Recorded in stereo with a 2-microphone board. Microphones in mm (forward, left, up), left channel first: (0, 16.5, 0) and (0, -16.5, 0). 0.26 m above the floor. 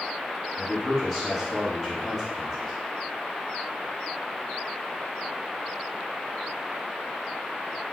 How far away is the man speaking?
About 1.3 m.